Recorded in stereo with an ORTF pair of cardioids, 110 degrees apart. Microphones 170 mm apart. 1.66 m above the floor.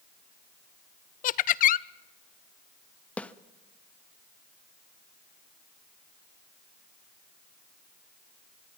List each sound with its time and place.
1.2 s laughter: 55° left, 0.7 m
3.2 s a snare drum: 5° left, 0.8 m